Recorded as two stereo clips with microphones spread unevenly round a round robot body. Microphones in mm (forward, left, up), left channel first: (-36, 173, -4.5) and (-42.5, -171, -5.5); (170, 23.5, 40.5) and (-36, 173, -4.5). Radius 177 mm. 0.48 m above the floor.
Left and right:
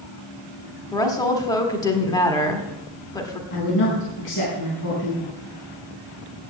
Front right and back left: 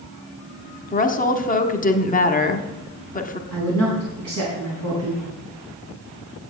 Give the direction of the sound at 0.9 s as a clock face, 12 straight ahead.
11 o'clock.